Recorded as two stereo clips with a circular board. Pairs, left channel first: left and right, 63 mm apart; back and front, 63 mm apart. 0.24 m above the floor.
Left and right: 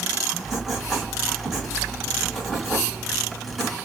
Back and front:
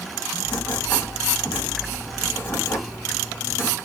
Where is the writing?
170° right, 1.5 m.